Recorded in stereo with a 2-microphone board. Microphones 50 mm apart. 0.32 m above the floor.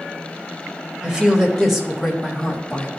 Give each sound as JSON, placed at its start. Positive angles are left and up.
{"t": 1.0, "sound": "a woman speaking", "side_deg": -20, "distance_m": 1.4}